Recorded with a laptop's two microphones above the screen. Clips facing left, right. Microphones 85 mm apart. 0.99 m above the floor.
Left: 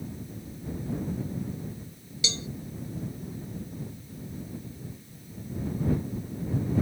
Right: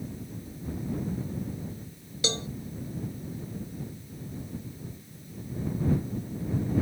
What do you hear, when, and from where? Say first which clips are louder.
2.2 s a cowbell: right 5 dB; 50° right (ahead or behind)